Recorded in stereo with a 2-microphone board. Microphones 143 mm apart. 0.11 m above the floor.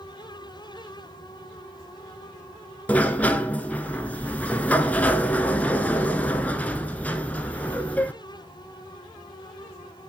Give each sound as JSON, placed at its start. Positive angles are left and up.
{"t": 2.9, "sound": "a sliding door", "side_deg": 10, "distance_m": 0.5}